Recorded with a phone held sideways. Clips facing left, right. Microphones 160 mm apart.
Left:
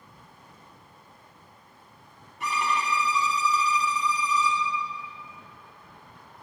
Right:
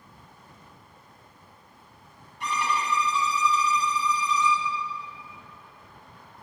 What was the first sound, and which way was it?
A violin, 5° left (ahead or behind).